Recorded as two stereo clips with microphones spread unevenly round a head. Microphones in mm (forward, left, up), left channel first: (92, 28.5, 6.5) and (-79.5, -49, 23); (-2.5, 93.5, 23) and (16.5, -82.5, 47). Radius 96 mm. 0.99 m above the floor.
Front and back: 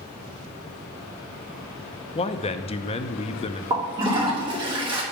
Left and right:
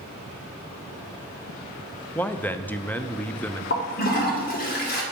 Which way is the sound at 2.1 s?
35° left.